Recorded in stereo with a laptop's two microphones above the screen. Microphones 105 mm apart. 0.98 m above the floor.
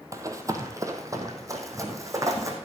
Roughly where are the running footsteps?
Right.